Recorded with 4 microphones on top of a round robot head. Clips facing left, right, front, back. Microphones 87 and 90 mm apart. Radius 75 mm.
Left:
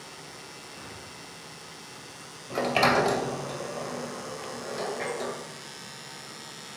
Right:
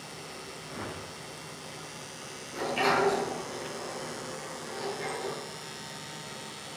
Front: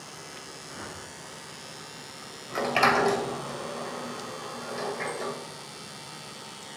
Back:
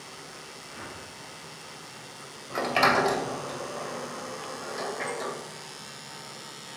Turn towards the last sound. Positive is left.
turn(degrees=95)